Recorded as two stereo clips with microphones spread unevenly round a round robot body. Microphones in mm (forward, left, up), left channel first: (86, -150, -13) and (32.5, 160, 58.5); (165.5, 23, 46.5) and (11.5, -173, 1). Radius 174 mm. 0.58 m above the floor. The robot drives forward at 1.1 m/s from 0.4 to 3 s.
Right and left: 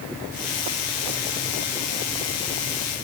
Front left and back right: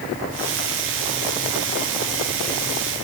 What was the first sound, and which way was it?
Only background noise.